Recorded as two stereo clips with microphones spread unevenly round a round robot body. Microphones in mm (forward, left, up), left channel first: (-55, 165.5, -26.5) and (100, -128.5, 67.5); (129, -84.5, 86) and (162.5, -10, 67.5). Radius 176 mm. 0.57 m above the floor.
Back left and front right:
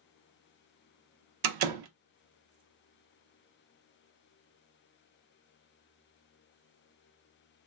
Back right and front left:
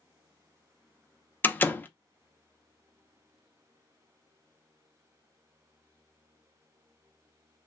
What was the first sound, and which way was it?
A door slam, 40° right.